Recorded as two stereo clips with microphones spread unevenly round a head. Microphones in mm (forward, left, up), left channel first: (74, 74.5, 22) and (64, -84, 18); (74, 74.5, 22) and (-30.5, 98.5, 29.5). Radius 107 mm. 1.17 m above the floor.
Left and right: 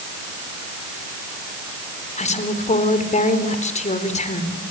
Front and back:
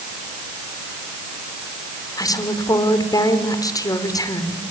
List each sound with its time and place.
2.2 s a woman speaking: 45° left, 4 m